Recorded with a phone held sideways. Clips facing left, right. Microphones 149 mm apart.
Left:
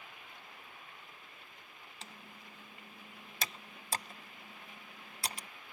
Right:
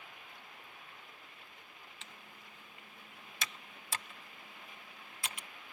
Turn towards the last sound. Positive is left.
turn(degrees=40)  # may be behind; listen again after turning